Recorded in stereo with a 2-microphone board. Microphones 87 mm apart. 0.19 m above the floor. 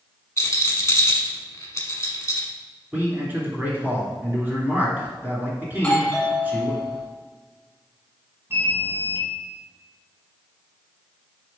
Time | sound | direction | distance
0.4 | a rattle | 35° left (ahead or behind) | 1.1 m
2.9 | a man speaking | 20° right (ahead or behind) | 2 m
5.7 | a doorbell | 15° left (ahead or behind) | 1.8 m
8.5 | an alarm | 30° right (ahead or behind) | 1.7 m